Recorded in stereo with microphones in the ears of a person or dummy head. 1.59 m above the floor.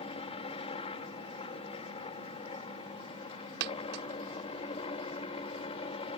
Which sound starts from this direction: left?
A helicopter, at 0.0 s.